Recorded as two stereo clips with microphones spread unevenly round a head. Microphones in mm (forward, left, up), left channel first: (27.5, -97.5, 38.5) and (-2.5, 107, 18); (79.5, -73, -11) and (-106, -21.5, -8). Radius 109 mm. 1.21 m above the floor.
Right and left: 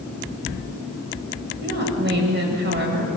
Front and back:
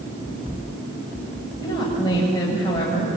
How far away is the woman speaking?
About 7.5 m.